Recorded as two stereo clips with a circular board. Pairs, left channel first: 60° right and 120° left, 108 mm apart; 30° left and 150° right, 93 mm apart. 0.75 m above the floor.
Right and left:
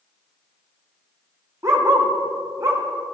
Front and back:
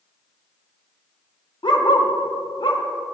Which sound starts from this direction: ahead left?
A dog barking, at 1.6 s.